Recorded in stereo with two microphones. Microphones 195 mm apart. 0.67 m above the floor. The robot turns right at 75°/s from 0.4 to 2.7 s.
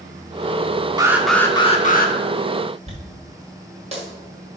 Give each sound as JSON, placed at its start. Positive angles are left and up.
{"t": 1.0, "sound": "an alarm", "azimuth_deg": -20, "distance_m": 1.0}
{"t": 2.9, "sound": "a dropped coin", "side_deg": -30, "distance_m": 4.0}